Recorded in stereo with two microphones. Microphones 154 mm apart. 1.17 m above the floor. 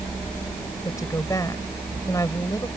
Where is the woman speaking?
20° left (ahead or behind).